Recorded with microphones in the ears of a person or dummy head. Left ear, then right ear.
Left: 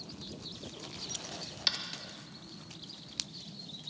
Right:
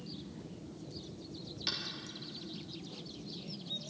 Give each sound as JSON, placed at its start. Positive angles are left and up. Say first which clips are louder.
{"t": 1.7, "sound": "tapping", "louder": "left 5 dB", "side_deg": 25, "distance_m": 1.4}